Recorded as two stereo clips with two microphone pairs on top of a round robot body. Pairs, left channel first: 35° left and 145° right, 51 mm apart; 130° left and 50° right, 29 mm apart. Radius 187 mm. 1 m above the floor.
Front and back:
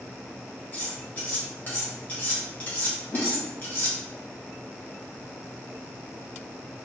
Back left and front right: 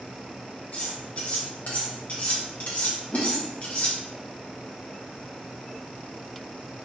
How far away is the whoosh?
About 0.5 m.